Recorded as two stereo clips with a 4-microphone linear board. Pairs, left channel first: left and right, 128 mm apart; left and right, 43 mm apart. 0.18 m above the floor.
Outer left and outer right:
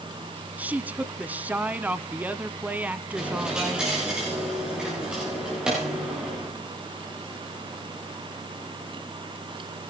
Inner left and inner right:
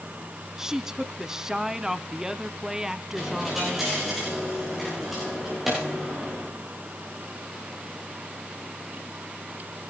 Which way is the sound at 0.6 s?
10° right (ahead or behind).